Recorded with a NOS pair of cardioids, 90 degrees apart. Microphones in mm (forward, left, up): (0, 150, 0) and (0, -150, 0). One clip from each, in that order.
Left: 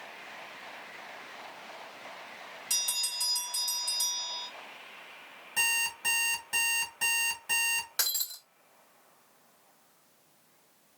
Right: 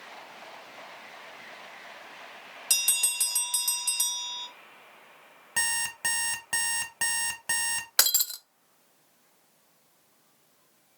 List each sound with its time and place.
2.7 s a bell: 55° right, 1.5 m
5.6 s an alarm clock: 65° right, 2.5 m
8.0 s breaking glass: 50° right, 0.7 m